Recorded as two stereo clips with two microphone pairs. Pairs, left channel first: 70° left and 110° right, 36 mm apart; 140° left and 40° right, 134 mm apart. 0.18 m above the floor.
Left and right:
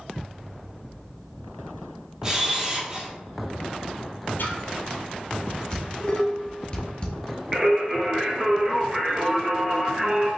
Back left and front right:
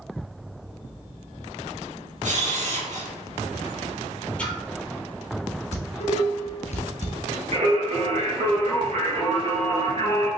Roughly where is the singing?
Ahead right.